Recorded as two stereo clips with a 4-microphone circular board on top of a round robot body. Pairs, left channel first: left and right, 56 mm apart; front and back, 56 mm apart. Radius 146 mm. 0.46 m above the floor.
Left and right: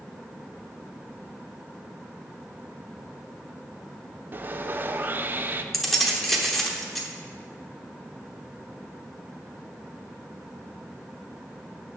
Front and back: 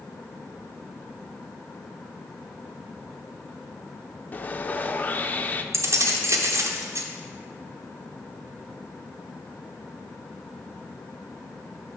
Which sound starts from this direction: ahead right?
Sawing, at 4.3 s.